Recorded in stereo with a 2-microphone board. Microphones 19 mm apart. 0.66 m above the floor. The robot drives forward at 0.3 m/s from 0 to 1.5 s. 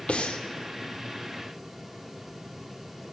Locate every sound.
0.1 s breathing: 85° left, 0.5 m; by 0.4 s 80° left, 0.6 m